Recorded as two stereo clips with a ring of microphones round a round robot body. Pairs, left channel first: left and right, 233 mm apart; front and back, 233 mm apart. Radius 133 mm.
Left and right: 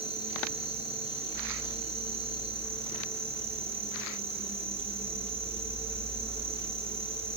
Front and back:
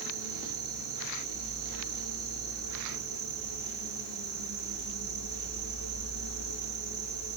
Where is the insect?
155° right, 6.5 m.